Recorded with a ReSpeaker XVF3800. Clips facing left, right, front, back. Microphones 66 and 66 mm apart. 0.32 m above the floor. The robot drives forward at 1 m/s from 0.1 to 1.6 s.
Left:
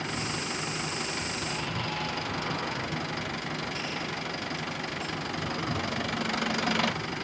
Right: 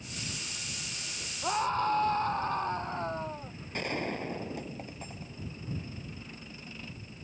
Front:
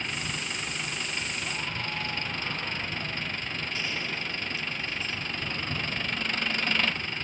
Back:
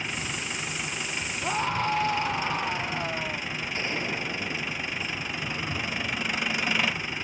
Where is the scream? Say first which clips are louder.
Right 4 dB, back 7 dB; 140° right.